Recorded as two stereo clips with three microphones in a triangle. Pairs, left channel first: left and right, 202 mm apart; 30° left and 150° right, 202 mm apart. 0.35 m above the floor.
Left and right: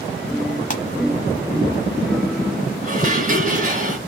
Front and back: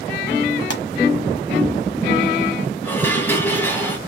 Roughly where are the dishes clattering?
Ahead right.